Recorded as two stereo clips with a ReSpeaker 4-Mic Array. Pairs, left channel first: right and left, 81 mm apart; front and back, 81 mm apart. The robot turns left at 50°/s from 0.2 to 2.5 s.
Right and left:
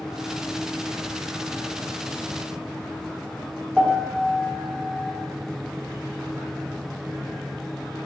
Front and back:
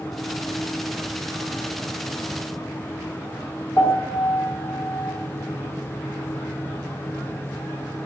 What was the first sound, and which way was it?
A piano, 5° right.